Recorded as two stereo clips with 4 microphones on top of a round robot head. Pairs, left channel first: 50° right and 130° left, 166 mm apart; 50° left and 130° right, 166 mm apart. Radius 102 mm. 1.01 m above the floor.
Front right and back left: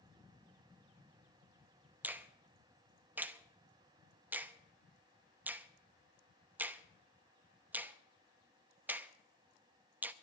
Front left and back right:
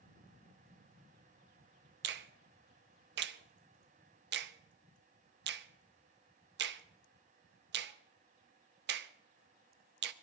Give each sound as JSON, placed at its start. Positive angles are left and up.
{"t": 2.0, "sound": "a finger snap", "azimuth_deg": -150, "distance_m": 0.7}